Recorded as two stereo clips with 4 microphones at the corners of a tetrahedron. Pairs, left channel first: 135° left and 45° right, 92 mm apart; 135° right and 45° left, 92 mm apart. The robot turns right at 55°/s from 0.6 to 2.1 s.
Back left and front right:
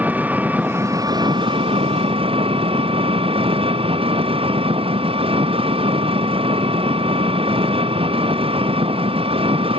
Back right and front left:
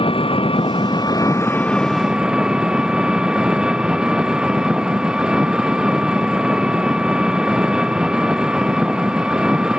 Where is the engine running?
120° right; by 9.8 s 35° right.